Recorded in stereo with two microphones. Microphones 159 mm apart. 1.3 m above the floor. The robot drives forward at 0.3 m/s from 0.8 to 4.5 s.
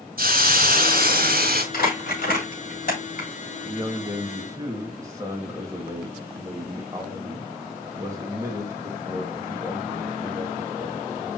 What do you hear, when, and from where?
0.2 s a hiss: 65° right (ahead or behind), 2 m; by 1.6 s 70° right (ahead or behind), 2 m
1.7 s crumpling: 75° left (ahead or behind), 5 m; by 3.3 s 70° left (ahead or behind), 5 m
3.6 s a man speaking: 20° right (ahead or behind), 2.0 m